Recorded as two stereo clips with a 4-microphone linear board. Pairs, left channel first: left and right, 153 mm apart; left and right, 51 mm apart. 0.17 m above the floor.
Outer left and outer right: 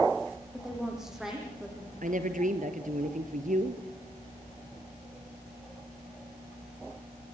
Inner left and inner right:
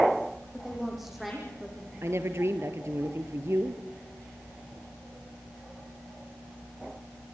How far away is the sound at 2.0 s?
About 2.5 m.